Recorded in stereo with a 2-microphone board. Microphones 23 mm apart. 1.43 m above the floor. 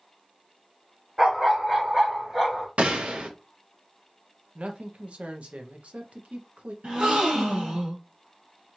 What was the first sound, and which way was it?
A dog barking, 45° right (ahead or behind).